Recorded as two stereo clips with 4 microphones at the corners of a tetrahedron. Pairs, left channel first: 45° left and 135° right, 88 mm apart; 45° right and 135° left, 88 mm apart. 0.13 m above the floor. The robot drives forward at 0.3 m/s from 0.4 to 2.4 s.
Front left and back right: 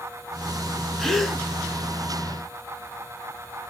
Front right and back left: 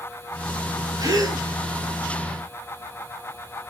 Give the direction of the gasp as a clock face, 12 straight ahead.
8 o'clock.